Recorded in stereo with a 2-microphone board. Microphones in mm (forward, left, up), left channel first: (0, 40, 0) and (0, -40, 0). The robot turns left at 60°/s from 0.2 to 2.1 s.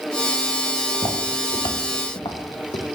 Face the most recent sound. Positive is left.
turn(degrees=85)